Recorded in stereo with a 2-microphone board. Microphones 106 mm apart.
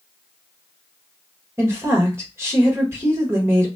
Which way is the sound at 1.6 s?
25° right (ahead or behind).